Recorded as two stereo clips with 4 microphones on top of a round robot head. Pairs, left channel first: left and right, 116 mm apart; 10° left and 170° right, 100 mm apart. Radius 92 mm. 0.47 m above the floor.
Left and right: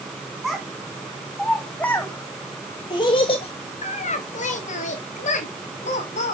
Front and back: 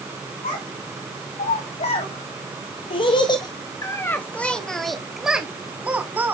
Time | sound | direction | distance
0.4 | a child speaking | straight ahead | 3 m